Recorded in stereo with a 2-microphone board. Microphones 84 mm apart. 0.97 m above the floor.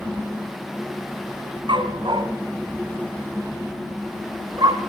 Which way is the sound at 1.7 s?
80° right.